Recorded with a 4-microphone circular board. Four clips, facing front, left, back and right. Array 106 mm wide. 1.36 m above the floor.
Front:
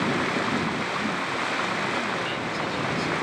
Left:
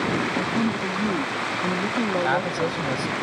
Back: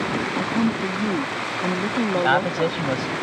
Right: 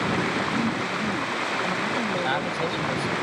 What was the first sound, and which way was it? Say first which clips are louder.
A woman speaking: left 1 dB, back 4 dB; 155° left.